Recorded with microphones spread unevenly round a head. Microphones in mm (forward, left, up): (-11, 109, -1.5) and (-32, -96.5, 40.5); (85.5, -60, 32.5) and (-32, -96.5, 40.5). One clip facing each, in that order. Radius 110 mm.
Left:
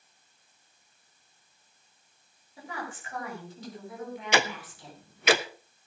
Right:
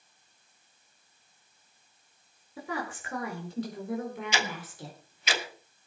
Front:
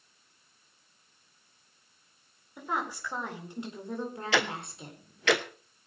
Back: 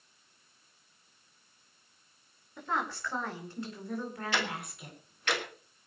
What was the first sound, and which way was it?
A woman speaking, 65° right.